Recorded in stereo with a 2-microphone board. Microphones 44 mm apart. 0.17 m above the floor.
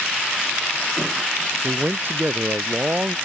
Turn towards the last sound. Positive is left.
turn(degrees=-45)  # may be behind; listen again after turning